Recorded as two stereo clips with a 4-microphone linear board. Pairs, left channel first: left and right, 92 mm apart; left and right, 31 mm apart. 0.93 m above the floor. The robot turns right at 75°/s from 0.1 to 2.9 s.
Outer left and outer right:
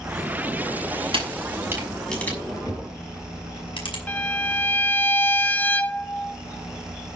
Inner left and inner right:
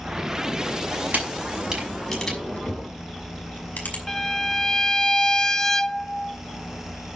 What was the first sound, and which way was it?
A camera shutter, 70° right (ahead or behind).